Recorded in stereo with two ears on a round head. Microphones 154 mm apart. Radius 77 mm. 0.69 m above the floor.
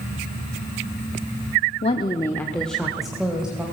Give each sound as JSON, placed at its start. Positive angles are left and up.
{"t": 1.8, "sound": "a woman speaking", "side_deg": 40, "distance_m": 0.9}